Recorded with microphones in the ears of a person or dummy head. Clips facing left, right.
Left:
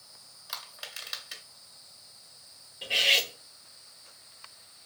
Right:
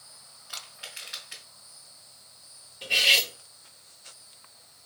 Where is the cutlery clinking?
5° right (ahead or behind), 0.9 m.